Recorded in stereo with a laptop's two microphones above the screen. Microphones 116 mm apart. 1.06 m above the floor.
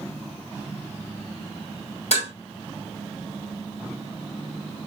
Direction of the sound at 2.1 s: 70° left (ahead or behind).